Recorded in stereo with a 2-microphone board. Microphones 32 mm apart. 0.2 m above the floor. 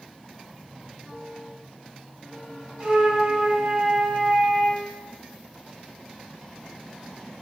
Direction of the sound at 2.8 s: 25° right (ahead or behind).